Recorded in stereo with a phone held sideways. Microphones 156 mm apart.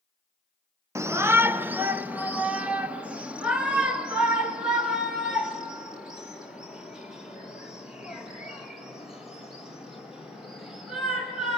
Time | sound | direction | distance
0.9 | a shout | 20° right (ahead or behind) | 0.8 m